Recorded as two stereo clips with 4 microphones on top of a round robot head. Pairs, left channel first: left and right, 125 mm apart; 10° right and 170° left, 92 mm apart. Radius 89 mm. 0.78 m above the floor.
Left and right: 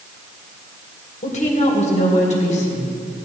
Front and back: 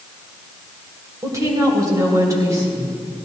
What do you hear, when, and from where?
1.2 s a woman speaking: 120° left, 3.5 m